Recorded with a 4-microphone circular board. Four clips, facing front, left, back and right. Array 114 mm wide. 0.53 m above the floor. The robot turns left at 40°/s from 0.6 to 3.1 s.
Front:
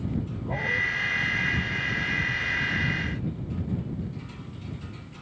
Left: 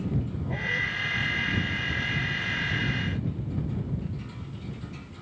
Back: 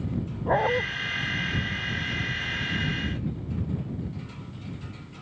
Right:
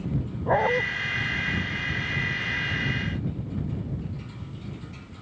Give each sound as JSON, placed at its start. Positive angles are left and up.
{"t": 0.5, "sound": "a dog barking", "azimuth_deg": -125}